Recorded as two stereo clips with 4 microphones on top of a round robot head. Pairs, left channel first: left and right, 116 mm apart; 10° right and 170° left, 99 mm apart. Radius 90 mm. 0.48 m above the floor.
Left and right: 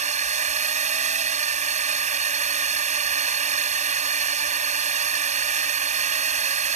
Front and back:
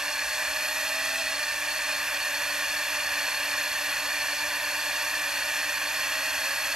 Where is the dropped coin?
No dropped coin in this recording.